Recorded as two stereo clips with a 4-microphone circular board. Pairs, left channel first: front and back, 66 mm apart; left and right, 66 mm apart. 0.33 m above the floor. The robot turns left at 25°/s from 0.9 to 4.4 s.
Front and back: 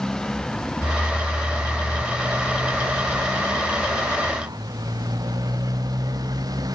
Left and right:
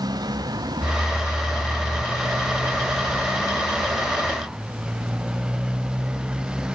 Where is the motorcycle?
80° right; by 6.8 s 165° right.